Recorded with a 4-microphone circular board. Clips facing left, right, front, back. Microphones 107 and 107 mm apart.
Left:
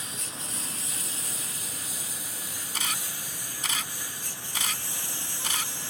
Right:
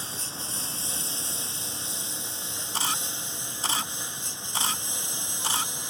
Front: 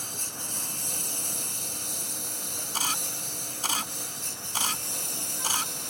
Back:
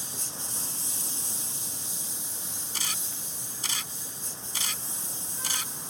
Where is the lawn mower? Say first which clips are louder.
Right 2 dB, front 2 dB; 30° right; by 5.9 s 20° right.